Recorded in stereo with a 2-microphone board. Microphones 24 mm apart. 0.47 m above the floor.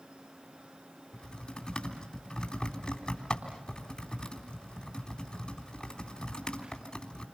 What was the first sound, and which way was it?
Typing on a keyboard, 35° left (ahead or behind).